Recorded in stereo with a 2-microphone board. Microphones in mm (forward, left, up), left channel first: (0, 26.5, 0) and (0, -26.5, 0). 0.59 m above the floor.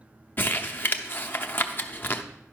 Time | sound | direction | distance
0.4 | crumpling | 40° left (ahead or behind) | 0.7 m